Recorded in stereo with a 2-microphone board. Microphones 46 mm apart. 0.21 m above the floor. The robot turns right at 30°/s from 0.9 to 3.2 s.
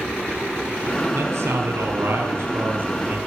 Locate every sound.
1.1 s a man speaking: 100° right, 5 m; by 3.2 s 40° right, 5 m